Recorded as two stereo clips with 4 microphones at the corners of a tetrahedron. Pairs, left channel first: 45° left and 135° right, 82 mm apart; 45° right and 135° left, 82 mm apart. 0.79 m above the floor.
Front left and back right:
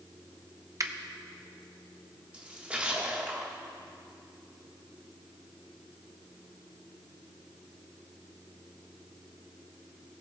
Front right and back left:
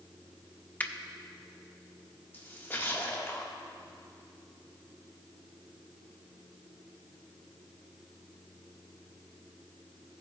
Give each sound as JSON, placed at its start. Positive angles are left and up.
{"t": 0.8, "sound": "a finger snap", "azimuth_deg": -105, "distance_m": 0.5}
{"t": 2.3, "sound": "a splash", "azimuth_deg": -75, "distance_m": 1.1}